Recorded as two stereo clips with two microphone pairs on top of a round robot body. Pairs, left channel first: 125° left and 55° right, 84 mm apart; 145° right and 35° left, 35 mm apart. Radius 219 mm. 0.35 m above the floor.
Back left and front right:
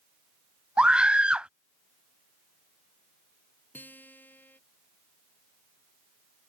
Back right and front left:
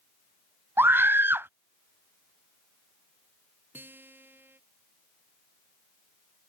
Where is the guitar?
60° left.